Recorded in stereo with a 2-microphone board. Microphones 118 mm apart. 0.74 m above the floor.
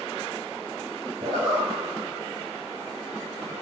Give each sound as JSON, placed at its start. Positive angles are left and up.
{"t": 1.2, "sound": "a zipper", "side_deg": -75, "distance_m": 1.1}